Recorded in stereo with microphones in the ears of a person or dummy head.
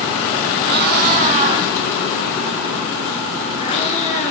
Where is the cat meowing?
60° right (ahead or behind), 2.5 m; by 4.3 s 40° left (ahead or behind), 4 m.